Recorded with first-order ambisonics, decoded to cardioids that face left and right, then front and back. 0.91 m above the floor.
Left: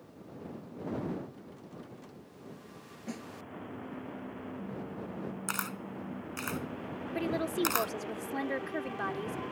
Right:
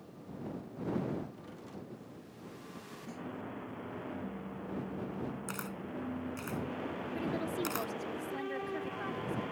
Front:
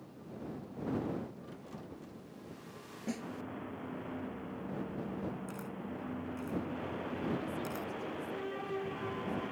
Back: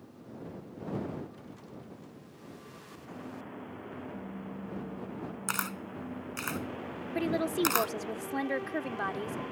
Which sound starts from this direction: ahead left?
A snare drum, at 3.1 s.